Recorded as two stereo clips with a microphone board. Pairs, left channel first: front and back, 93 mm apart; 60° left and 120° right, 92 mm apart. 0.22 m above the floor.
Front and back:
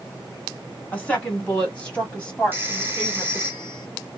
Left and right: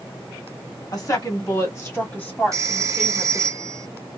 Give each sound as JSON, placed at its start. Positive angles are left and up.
{"t": 0.9, "sound": "a woman speaking", "azimuth_deg": 70, "distance_m": 2.0}
{"t": 2.5, "sound": "a phone ringing", "azimuth_deg": -130, "distance_m": 1.0}